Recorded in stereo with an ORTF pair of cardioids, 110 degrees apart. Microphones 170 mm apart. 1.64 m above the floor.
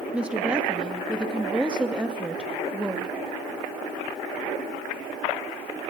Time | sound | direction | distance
0.1 | a woman speaking | 5° right | 2.5 m